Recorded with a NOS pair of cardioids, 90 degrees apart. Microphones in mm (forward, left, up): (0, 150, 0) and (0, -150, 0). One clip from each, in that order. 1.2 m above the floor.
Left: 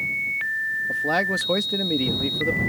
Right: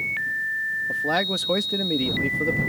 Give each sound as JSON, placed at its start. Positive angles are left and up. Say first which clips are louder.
{"t": 0.9, "sound": "a man speaking", "louder": "left 2 dB", "azimuth_deg": 0}